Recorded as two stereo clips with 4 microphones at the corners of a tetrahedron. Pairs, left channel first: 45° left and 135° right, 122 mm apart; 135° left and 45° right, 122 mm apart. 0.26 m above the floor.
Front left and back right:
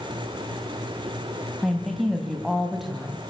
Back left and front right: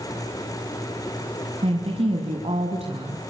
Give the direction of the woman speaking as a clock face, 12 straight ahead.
2 o'clock.